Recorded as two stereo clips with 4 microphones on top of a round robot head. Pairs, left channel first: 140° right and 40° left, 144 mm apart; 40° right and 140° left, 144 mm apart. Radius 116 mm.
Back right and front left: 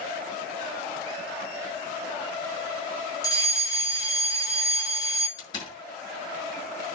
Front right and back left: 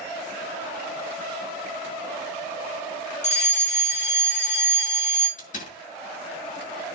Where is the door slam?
75° right, 7 m.